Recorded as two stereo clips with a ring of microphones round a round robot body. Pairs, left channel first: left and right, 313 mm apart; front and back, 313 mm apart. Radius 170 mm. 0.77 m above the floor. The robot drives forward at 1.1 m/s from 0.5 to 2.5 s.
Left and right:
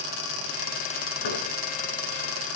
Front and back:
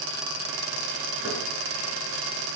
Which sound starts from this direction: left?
Knocking, at 1.2 s.